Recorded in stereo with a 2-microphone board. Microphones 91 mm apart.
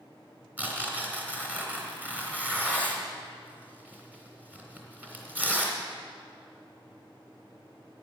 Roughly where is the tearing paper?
Centre.